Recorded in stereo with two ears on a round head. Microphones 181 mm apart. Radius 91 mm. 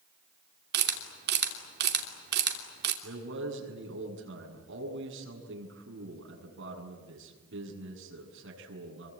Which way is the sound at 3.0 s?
65° right (ahead or behind).